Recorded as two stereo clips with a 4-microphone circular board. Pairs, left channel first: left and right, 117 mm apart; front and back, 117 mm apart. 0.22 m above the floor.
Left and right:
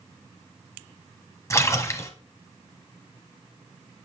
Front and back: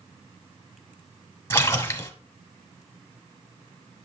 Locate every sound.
1.5 s a splash: 50° left, 1.0 m